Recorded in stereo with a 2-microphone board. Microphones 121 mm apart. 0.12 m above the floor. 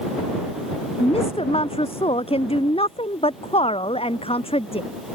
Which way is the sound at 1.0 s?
50° left (ahead or behind).